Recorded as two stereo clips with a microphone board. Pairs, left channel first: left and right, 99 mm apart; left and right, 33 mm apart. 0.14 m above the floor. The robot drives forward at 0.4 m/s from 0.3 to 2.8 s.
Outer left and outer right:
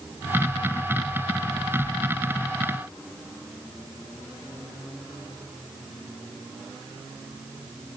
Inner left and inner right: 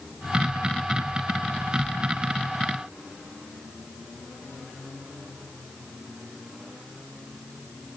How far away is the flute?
No flute in this recording.